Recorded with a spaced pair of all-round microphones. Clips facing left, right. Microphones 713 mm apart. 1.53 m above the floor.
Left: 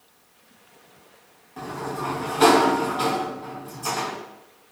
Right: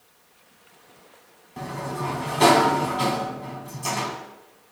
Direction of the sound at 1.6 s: 50° right (ahead or behind).